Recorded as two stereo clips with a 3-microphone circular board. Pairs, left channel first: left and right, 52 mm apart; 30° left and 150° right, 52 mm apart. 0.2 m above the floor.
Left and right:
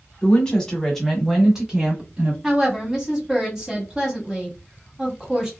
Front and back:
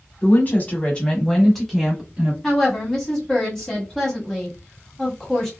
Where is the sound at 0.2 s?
30° left, 1.2 m; by 2.3 s 105° right, 1.1 m.